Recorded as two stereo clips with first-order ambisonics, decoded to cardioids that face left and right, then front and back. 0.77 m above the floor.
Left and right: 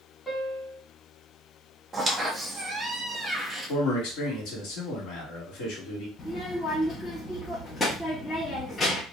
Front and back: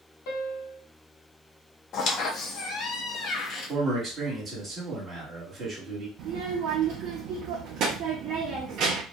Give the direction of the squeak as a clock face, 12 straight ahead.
1 o'clock.